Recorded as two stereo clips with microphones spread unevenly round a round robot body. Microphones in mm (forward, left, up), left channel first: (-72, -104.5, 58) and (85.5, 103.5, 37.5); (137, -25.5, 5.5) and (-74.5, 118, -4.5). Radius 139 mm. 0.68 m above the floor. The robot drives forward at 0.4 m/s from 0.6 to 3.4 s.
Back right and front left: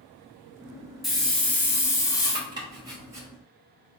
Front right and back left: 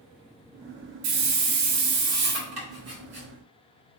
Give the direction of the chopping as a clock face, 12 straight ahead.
8 o'clock.